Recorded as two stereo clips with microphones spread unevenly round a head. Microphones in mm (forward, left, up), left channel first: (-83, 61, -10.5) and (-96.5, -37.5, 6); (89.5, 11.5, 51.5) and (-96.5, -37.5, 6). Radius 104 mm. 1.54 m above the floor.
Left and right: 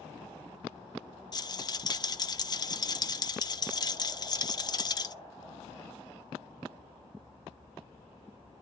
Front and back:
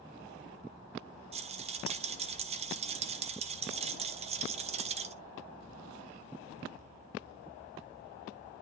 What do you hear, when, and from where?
1.3 s a rattle: 135° left, 0.9 m